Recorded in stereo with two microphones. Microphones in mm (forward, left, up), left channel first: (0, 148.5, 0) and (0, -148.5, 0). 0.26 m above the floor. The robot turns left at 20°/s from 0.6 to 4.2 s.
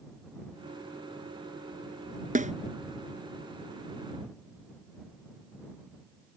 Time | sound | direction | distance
2.4 | a snare drum | 30° right (ahead or behind) | ?